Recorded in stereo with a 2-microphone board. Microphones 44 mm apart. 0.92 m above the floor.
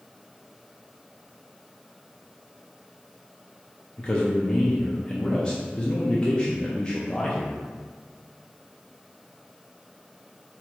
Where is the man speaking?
25° left (ahead or behind), 0.6 m.